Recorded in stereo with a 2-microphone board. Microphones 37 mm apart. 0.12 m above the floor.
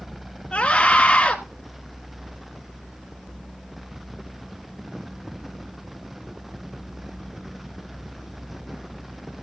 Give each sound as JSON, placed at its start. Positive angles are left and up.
{"t": 0.5, "sound": "a scream", "side_deg": 25, "distance_m": 1.4}